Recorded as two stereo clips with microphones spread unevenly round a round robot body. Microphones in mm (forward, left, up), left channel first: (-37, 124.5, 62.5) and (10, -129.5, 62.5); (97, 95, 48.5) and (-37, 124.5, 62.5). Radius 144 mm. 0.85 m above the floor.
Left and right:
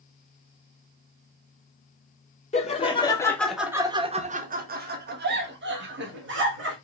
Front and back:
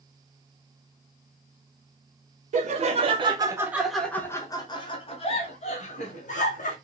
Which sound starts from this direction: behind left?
Laughter, at 2.5 s.